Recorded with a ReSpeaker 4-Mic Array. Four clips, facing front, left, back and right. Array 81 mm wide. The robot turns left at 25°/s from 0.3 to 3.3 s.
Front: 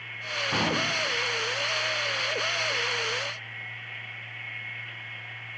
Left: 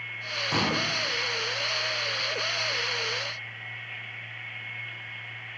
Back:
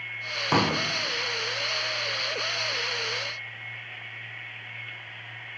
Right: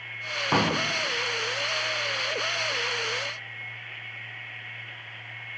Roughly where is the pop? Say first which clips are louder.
Right 4 dB, back 4 dB; behind right.